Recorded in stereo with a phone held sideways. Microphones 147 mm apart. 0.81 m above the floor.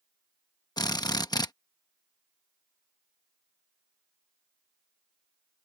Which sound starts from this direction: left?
A drill, at 0.8 s.